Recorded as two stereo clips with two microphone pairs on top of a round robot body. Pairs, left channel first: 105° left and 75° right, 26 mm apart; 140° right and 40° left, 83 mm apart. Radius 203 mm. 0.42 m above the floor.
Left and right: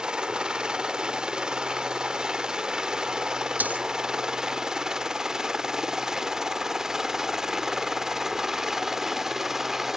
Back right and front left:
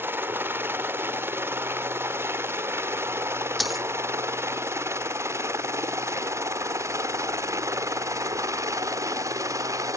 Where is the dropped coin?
50° right.